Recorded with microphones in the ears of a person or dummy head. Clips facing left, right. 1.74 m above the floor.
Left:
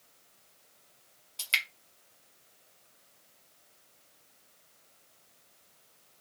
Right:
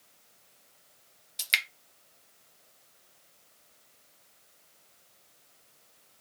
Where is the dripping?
25° right (ahead or behind), 1.0 m.